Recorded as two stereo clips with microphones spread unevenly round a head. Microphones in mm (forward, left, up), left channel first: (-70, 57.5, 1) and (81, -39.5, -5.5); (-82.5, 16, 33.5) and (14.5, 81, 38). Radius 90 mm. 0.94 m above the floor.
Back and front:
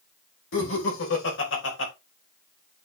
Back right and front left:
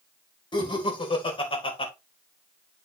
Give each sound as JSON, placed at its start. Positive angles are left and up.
{"t": 0.5, "sound": "laughter", "azimuth_deg": 170, "distance_m": 4.0}